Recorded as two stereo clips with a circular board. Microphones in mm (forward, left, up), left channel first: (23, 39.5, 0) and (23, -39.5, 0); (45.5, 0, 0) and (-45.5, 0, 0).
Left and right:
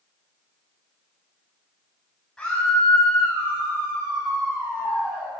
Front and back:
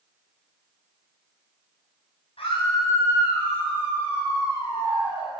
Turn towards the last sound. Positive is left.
turn(degrees=-30)